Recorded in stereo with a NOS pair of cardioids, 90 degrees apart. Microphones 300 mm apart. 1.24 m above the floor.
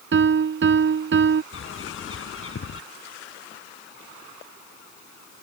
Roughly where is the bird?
Ahead left.